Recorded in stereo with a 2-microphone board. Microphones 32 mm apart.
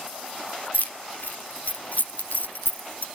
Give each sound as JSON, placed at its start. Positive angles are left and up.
{"t": 0.7, "sound": "keys jangling", "side_deg": 65, "distance_m": 0.9}